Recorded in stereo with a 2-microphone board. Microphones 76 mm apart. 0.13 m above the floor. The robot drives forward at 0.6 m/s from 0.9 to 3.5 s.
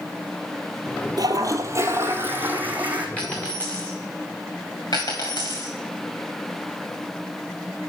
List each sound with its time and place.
1.2 s a toilet flushing: 65° right (ahead or behind), 0.6 m; by 3.1 s 20° right (ahead or behind), 1.4 m
3.2 s a dropped coin: 15° left (ahead or behind), 2.5 m
4.9 s a dropped coin: 55° left (ahead or behind), 3 m